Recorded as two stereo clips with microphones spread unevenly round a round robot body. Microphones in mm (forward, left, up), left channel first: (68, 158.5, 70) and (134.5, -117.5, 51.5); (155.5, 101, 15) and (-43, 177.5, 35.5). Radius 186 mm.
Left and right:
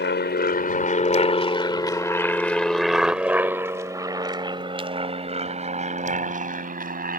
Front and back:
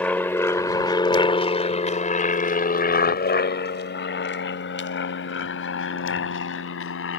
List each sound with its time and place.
0.0 s an aircraft: 60° left; by 7.2 s 20° right